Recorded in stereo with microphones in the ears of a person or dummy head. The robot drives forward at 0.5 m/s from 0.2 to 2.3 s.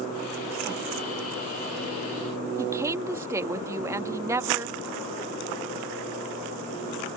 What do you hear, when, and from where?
2.6 s a woman speaking: 15° right (ahead or behind)